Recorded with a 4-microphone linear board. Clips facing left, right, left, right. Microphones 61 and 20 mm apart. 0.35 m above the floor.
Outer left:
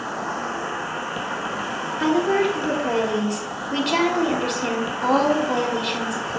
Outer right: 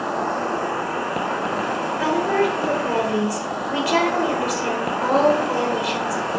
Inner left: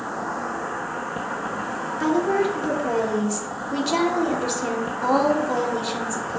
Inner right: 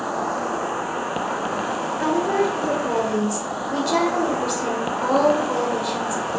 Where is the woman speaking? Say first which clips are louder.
Outer left 1 dB, even; 10° right (ahead or behind), 1.1 m.